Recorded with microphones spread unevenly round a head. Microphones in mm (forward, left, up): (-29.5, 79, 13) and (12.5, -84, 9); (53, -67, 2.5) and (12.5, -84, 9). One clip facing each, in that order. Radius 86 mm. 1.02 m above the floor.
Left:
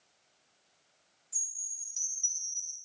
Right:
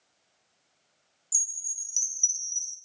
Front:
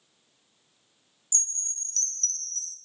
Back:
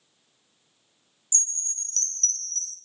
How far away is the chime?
About 0.7 m.